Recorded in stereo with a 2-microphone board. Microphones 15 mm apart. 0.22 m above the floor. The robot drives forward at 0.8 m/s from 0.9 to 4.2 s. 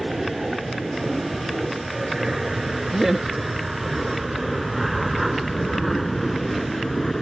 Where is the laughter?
15° right (ahead or behind).